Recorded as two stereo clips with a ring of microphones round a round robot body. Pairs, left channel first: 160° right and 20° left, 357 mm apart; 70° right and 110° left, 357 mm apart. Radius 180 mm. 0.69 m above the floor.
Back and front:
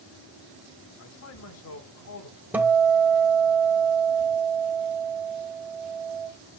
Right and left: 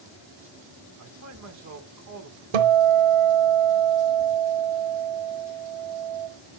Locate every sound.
1.0 s a man speaking: 155° left, 2.5 m
2.5 s a guitar: 110° left, 1.3 m